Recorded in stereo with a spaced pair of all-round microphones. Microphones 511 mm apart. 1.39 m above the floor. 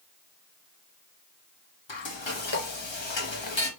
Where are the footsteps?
No footsteps in this recording.